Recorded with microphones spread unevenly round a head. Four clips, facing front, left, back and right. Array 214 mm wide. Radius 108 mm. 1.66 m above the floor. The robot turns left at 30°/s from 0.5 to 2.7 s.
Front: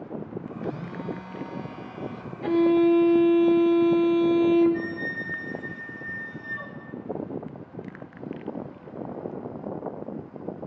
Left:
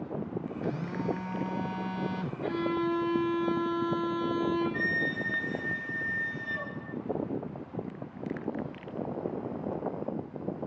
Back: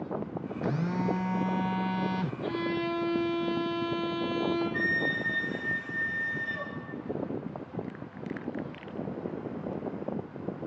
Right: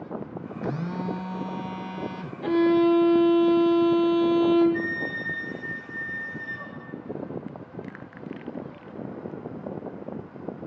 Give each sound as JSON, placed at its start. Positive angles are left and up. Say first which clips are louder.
{"t": 0.6, "sound": "a phone buzzing", "louder": "right 4 dB, back 5 dB", "azimuth_deg": -130, "distance_m": 0.9}
{"t": 2.4, "sound": "a violin", "louder": "right 11 dB, front 15 dB", "azimuth_deg": -55, "distance_m": 2.5}
{"t": 4.7, "sound": "a flute", "louder": "right 2 dB, even", "azimuth_deg": 145, "distance_m": 4.5}